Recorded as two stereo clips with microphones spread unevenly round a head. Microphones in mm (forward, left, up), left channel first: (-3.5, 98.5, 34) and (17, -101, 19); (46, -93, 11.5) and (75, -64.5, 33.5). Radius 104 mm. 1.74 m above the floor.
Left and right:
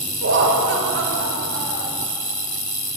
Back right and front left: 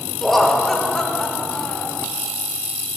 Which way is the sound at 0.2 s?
50° right.